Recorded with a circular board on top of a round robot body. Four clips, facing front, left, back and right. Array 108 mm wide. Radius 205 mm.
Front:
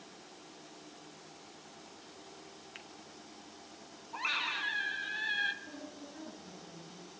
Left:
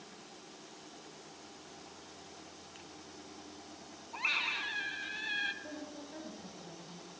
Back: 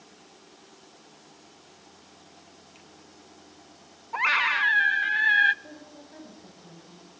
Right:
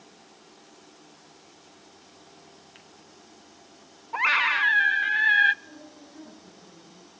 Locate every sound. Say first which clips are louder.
2.8 s a finger snap: left 1 dB, front 1 dB; 10° right, 2 m
4.1 s a scream: right 15 dB, back 13 dB; 135° right, 1.0 m
5.6 s a woman speaking: left 2 dB, back 1 dB; 140° left, 9 m